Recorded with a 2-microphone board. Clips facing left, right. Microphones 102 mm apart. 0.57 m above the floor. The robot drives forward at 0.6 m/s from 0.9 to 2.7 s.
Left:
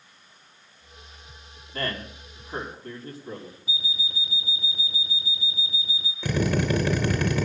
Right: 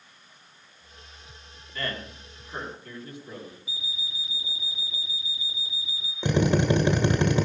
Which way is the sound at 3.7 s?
70° left (ahead or behind).